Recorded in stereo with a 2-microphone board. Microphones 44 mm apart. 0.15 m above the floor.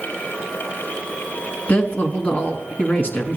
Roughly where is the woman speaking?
Left.